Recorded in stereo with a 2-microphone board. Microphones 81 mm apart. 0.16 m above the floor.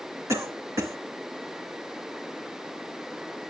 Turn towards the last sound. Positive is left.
turn(degrees=-40)  # may be behind; listen again after turning